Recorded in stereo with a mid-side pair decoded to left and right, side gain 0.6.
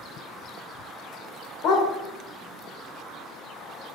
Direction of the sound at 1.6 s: 65° left.